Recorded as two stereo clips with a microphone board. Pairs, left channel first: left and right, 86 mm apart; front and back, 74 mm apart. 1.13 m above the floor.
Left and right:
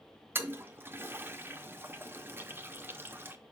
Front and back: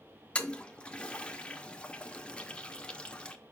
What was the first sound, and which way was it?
A toilet flushing, 60° right.